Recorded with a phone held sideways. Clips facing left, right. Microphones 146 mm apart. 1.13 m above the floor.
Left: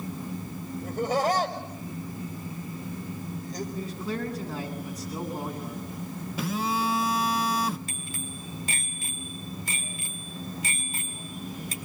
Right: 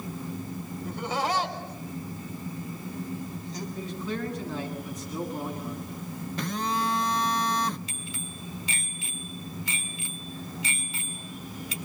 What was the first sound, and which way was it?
Laughter, 50° left (ahead or behind).